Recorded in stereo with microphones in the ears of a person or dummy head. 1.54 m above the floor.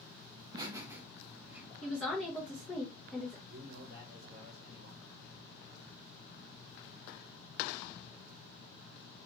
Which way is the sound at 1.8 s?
Centre (ahead or behind).